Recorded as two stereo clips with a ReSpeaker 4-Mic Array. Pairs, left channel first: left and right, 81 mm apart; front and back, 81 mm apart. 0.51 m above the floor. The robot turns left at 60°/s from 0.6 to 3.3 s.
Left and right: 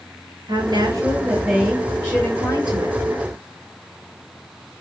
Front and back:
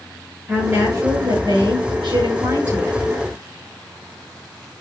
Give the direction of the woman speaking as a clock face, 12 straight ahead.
4 o'clock.